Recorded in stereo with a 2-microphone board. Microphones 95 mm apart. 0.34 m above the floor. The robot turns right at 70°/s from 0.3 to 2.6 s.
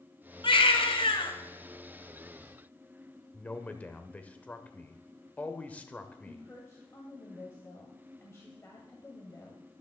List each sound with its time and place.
0.4 s a baby crying: 60° left, 1.7 m; by 1.3 s 120° left, 1.7 m
3.3 s a man speaking: 15° left (ahead or behind), 0.9 m
6.2 s a woman speaking: 30° left (ahead or behind), 1.9 m